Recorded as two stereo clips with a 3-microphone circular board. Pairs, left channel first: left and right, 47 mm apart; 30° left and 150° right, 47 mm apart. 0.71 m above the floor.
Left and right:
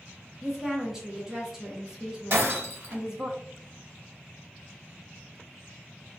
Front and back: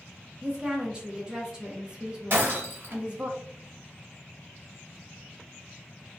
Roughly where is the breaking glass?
Behind right.